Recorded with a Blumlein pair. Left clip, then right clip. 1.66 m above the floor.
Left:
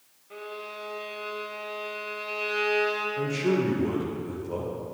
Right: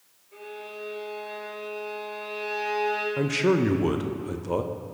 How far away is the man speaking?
About 0.7 m.